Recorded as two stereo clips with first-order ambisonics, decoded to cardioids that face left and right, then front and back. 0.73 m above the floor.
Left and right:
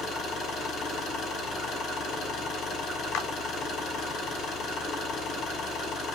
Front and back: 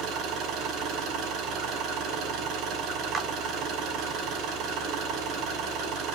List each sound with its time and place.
0.0 s an engine running: 145° left, 5.5 m
3.1 s a clap: 125° left, 1.8 m